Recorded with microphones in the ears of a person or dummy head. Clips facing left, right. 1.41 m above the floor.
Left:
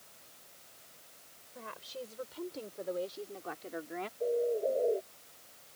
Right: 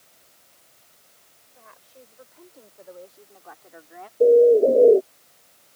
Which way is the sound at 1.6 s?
60° left (ahead or behind).